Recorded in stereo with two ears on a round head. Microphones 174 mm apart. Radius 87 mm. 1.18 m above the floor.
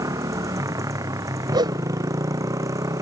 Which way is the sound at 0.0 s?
15° right (ahead or behind).